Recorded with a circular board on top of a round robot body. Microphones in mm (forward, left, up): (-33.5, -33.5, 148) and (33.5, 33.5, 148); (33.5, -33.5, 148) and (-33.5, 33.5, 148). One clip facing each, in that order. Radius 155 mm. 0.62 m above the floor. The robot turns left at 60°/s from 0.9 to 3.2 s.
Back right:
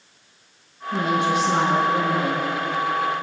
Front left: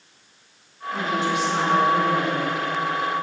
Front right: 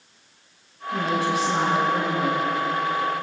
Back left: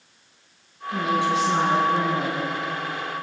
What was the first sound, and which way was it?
A woman speaking, 140° right.